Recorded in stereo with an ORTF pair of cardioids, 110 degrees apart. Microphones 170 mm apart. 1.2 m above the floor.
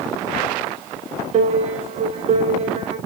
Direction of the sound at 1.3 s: 40° right.